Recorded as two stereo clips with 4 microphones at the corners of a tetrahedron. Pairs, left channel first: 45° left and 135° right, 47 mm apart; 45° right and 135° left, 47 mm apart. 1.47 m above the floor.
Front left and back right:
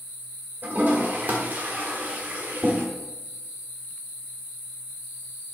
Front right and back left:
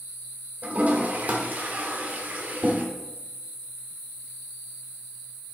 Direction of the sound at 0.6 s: 175° right.